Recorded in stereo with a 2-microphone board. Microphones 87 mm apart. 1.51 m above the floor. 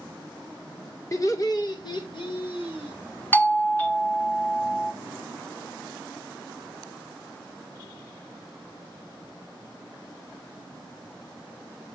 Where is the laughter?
35° left (ahead or behind), 2.0 m; by 3.0 s 75° left (ahead or behind), 2.5 m.